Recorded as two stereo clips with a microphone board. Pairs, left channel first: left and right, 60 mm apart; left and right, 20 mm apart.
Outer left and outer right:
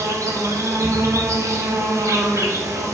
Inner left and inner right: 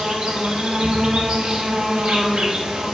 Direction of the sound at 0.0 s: 55° right (ahead or behind).